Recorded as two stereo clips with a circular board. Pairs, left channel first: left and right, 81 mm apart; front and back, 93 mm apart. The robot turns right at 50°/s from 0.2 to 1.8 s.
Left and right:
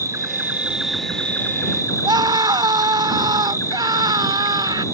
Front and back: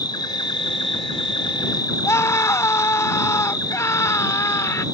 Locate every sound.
0.0 s an insect: 40° right; by 5.0 s 40° left
2.0 s a scream: 60° right